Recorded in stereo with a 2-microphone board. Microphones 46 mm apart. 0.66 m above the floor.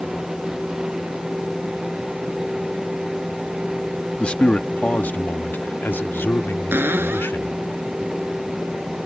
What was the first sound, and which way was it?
A man speaking, 20° left (ahead or behind).